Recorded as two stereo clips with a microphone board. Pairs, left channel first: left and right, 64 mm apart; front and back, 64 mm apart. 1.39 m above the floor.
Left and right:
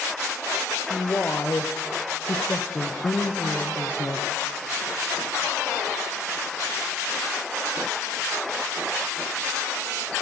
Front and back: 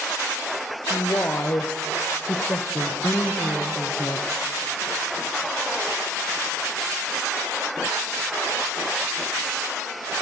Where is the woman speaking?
40° left, 0.7 m.